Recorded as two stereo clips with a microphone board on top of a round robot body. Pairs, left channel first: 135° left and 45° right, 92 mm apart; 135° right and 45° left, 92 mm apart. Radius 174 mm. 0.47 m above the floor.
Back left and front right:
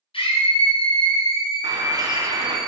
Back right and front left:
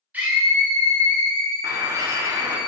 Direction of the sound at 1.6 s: 5° right.